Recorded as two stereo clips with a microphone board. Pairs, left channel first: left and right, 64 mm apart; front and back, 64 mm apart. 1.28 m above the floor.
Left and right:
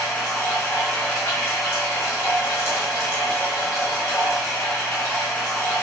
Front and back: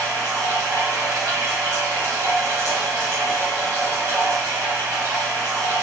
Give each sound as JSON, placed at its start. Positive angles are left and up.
{"t": 0.0, "sound": "running water", "azimuth_deg": 140, "distance_m": 1.4}